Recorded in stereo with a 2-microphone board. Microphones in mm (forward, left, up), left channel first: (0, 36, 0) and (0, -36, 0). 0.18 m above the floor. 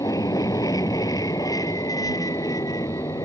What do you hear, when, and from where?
0.0 s an aircraft: 65° left (ahead or behind); by 3.2 s 60° left (ahead or behind)